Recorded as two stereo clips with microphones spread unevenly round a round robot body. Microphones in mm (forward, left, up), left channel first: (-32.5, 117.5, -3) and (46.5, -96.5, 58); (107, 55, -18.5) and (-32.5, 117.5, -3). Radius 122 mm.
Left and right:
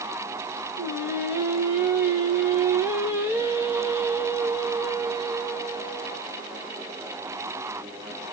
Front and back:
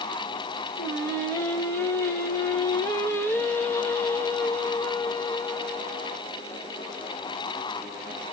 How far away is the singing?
About 1.0 m.